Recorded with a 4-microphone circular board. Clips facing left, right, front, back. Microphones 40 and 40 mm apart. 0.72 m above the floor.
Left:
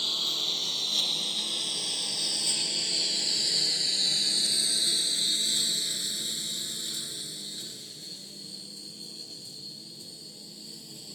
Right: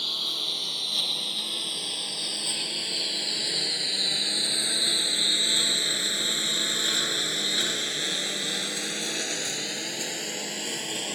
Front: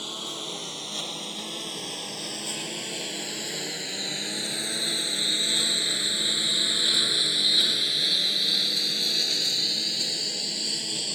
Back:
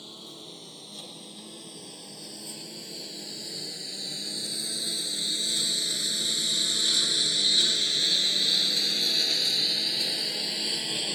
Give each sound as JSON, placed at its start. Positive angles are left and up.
{"t": 0.0, "sound": "a lawn mower", "azimuth_deg": -5}